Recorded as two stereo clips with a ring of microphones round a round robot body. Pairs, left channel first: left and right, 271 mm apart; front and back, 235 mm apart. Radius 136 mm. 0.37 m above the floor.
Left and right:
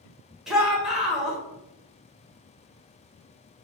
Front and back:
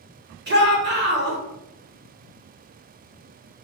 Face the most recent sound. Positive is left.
turn(degrees=180)